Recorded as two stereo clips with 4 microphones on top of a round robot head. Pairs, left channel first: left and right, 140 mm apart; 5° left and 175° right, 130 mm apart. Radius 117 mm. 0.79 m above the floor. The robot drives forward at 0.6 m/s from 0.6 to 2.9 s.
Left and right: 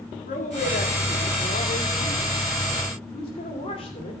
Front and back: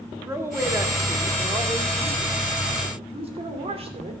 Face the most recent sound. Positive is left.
turn(degrees=145)